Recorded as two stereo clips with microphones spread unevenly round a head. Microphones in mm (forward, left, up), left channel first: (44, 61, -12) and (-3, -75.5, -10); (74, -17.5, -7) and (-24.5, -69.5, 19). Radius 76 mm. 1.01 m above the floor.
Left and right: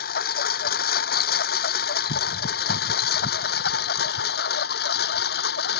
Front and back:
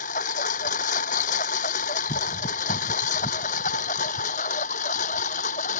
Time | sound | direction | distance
0.0 | a lawn mower | 55° left | ?